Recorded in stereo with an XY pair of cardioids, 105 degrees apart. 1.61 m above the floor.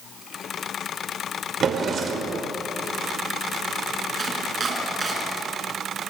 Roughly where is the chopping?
Ahead right.